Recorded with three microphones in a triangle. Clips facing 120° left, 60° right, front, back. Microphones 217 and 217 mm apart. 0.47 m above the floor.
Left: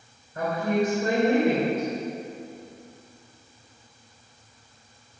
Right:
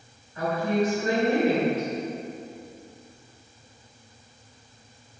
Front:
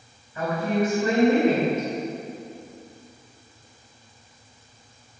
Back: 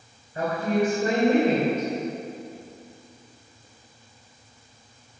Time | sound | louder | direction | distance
0.3 | a woman speaking | even, even | 150° left | 3 m